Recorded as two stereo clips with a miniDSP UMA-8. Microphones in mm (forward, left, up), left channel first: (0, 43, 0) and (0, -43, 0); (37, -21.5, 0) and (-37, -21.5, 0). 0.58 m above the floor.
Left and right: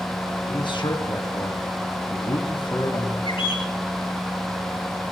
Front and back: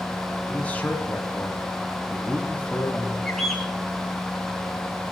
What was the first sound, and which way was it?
A man speaking, 70° left.